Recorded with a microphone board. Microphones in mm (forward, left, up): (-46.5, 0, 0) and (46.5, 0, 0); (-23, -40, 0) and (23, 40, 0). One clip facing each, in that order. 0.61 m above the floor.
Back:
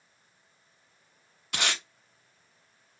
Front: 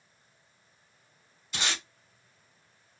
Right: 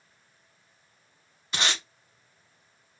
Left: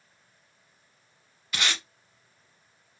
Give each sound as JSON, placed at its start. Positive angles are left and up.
{"t": 1.5, "sound": "tape being pulled", "azimuth_deg": 180, "distance_m": 0.9}